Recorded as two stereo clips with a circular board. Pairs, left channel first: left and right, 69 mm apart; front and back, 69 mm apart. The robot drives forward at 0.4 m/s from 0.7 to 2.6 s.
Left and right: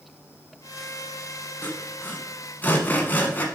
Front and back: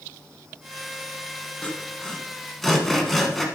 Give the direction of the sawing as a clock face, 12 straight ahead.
10 o'clock.